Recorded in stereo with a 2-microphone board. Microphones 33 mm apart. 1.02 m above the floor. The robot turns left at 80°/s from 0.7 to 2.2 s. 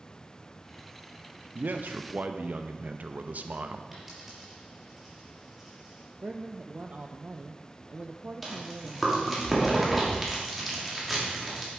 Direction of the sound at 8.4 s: 5° right (ahead or behind).